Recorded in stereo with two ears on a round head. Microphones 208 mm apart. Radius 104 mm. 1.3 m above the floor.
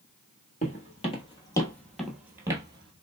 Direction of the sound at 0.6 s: 35° left (ahead or behind).